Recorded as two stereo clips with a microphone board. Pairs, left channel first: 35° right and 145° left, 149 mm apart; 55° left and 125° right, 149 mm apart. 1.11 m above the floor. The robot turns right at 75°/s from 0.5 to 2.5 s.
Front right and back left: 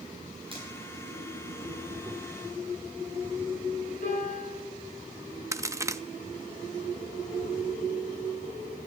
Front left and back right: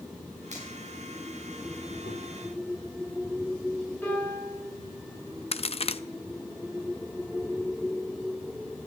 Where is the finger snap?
160° right, 7 m; by 0.7 s 150° right, 7 m.